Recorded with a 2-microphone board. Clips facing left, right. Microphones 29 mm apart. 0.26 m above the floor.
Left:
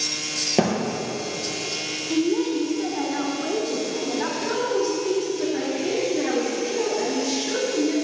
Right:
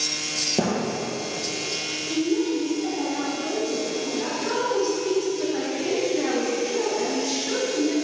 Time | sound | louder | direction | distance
0.6 | a thud | left 4 dB | 45° left (ahead or behind) | 2 m
2.1 | a woman speaking | left 2 dB | 50° left (ahead or behind) | 2 m
4.4 | a woman speaking | right 1 dB | 15° right (ahead or behind) | 1.9 m